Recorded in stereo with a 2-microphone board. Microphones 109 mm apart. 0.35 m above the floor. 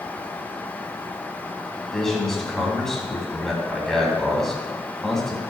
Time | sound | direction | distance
1.9 | a man speaking | 5° left (ahead or behind) | 3 m